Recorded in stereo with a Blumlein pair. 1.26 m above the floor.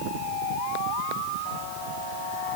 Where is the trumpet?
No trumpet in this recording.